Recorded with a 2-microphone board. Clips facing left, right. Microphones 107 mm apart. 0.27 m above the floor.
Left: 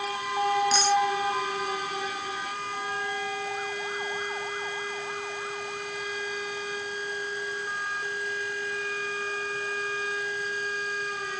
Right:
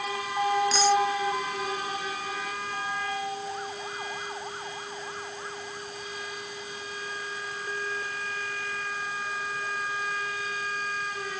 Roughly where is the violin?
I don't hear a violin.